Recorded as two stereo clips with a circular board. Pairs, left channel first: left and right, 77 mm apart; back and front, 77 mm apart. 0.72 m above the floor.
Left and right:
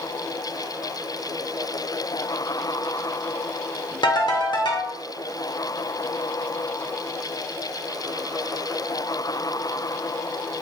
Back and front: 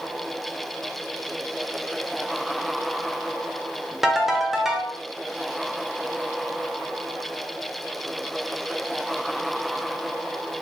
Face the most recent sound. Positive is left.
turn(degrees=85)